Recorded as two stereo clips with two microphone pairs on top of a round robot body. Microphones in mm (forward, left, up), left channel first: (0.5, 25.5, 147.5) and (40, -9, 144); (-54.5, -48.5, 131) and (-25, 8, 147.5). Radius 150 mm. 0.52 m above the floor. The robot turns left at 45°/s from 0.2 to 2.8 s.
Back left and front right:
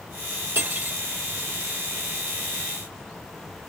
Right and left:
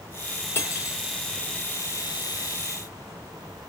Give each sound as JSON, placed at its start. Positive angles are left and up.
{"t": 0.6, "sound": "cutlery clinking", "azimuth_deg": -75, "distance_m": 0.8}